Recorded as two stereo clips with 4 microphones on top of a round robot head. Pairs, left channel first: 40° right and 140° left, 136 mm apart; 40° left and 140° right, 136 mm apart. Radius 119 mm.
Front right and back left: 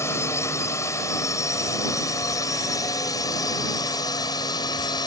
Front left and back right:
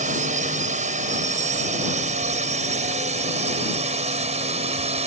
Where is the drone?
110° right; by 5.1 s 100° right.